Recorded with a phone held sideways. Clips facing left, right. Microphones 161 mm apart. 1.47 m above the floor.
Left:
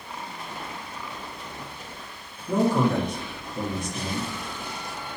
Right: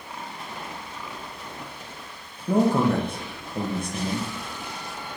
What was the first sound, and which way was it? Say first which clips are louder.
A man speaking: right 2 dB; 60° right (ahead or behind).